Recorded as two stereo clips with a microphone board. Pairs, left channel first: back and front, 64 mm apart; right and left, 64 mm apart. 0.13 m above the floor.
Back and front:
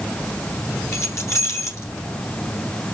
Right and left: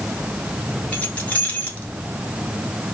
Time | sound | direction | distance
0.9 | keys jangling | 150° right | 1.4 m